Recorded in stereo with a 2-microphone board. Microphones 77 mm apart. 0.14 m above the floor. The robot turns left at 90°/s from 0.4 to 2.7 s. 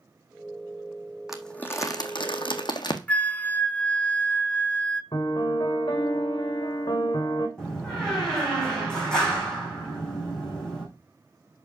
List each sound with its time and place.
1.3 s crumpling: 5° right (ahead or behind), 1.5 m; by 3.0 s 60° left (ahead or behind), 1.5 m
3.1 s a flute: 20° left (ahead or behind), 0.6 m
5.1 s a piano: 55° left (ahead or behind), 3 m
7.6 s a door slam: 10° left (ahead or behind), 5.5 m